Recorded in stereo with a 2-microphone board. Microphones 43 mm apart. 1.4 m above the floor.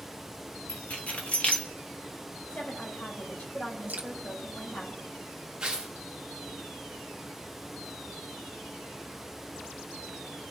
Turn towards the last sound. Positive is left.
turn(degrees=-20)  # may be behind; listen again after turning